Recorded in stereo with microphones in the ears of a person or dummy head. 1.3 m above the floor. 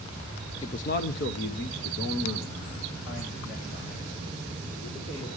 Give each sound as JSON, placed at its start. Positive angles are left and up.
{"t": 0.6, "sound": "a man speaking", "side_deg": 25, "distance_m": 0.6}